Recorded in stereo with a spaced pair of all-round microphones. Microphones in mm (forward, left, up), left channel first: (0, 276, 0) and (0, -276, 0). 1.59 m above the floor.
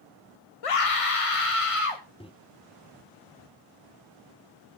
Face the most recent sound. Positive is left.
turn(degrees=10)  # may be behind; listen again after turning